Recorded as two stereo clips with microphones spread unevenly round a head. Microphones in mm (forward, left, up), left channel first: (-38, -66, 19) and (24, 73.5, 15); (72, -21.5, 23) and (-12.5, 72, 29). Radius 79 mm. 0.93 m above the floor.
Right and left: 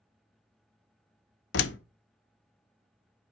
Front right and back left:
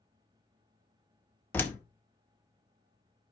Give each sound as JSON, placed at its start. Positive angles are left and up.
{"t": 1.5, "sound": "a door slam", "azimuth_deg": -125, "distance_m": 0.6}